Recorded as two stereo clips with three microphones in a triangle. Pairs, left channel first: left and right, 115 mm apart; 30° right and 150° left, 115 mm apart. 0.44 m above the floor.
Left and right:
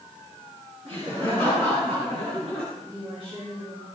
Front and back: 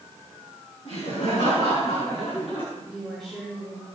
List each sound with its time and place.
0.8 s laughter: 60° right, 5 m; by 2.6 s 65° right, 3 m
2.8 s a woman speaking: 115° right, 5.5 m